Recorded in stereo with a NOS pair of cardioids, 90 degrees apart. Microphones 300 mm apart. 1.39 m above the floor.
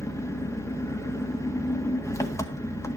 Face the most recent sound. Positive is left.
turn(degrees=10)